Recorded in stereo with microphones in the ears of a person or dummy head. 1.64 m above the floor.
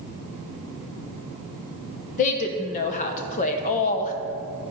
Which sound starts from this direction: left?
A woman speaking, at 2.2 s.